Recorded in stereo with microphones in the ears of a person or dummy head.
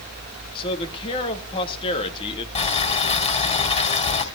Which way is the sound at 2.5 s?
25° left (ahead or behind).